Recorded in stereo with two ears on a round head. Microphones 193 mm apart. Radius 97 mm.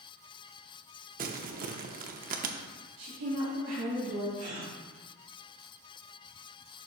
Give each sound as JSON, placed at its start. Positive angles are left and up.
{"t": 1.2, "sound": "crumpling", "side_deg": -40, "distance_m": 0.6}
{"t": 3.0, "sound": "a woman speaking", "side_deg": -70, "distance_m": 3.0}
{"t": 4.4, "sound": "a gasp", "side_deg": -35, "distance_m": 1.8}